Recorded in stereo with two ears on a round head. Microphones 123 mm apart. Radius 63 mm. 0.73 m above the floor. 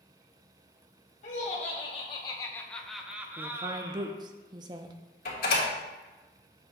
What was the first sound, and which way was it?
Laughter, 50° left (ahead or behind).